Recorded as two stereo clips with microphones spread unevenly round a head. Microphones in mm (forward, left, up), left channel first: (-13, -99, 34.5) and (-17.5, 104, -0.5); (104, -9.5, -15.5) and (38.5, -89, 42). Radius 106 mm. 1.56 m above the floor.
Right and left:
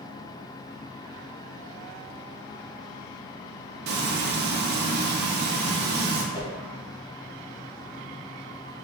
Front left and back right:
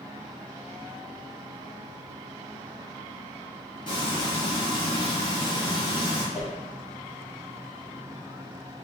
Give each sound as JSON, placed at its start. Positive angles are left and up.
{"t": 3.9, "sound": "frying", "azimuth_deg": 130, "distance_m": 0.6}
{"t": 6.3, "sound": "a whoosh", "azimuth_deg": -135, "distance_m": 0.7}